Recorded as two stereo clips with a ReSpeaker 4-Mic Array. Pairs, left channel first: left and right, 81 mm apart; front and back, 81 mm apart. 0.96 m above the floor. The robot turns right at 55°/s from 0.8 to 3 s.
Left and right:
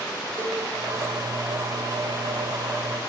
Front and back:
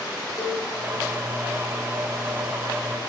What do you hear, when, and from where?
0.4 s a cowbell: 40° right, 1.0 m